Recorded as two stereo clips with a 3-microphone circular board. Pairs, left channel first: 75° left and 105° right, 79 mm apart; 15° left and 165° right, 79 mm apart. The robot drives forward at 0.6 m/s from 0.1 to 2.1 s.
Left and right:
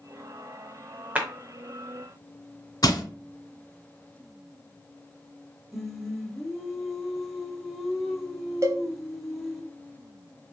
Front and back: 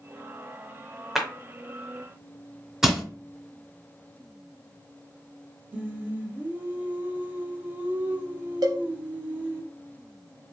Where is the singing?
175° left, 0.5 m.